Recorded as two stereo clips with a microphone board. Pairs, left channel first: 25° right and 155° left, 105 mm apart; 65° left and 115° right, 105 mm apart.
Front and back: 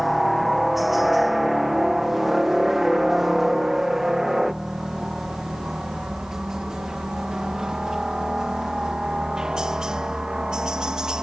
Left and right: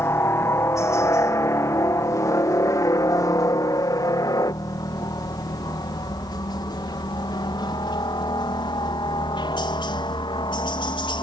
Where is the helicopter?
70° left; by 11.2 s 75° left.